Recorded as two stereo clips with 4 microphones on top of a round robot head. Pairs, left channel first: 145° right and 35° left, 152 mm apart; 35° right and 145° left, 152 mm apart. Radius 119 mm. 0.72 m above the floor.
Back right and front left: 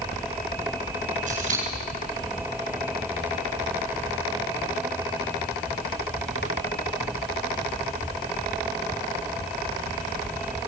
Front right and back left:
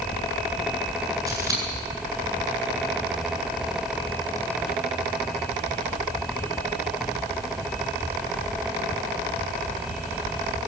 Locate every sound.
1.3 s scissors: 75° left, 9 m